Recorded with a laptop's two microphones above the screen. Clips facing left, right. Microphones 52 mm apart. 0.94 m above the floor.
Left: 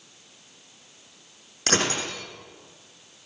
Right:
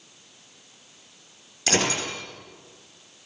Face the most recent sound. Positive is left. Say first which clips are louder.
# right 1 dB
turn(degrees=45)  # may be behind; listen again after turning